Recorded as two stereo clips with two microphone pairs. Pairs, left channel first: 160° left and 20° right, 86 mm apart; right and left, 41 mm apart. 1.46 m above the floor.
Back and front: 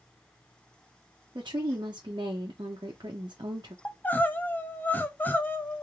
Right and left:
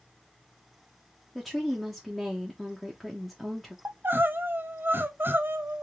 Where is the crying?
95° left, 0.6 m.